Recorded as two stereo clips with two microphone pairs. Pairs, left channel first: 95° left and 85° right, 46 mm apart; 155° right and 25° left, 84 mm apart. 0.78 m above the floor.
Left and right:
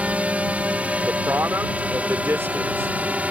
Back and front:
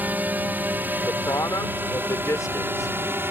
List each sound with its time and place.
0.0 s a drone: 35° right; by 3.3 s 30° right
1.0 s a man speaking: 110° right